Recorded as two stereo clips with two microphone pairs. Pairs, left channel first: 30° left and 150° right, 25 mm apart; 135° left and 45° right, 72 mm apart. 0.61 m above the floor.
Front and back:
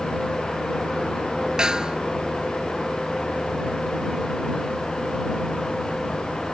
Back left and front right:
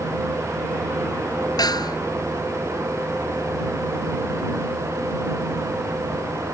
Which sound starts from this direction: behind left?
A snare drum, at 1.6 s.